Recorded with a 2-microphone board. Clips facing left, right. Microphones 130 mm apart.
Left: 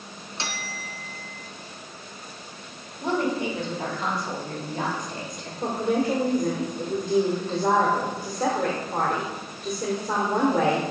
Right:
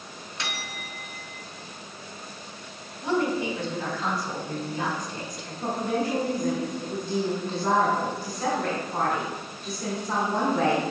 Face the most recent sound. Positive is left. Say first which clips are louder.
# left 3 dB
turn(degrees=65)  # may be behind; listen again after turning